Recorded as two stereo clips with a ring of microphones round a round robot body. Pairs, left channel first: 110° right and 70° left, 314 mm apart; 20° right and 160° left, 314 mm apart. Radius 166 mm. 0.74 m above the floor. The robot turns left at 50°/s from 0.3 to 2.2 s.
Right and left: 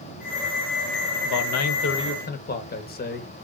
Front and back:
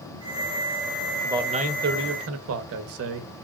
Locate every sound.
1.2 s a man speaking: 120° right, 0.7 m; by 3.3 s 170° right, 0.7 m